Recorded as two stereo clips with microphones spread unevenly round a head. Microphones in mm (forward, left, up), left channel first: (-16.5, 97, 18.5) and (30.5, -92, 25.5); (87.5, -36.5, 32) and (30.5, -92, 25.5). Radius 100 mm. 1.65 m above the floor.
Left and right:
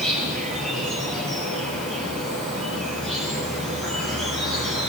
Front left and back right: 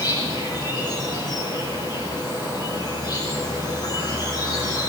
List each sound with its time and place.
0.0 s an insect: 15° left, 9.5 m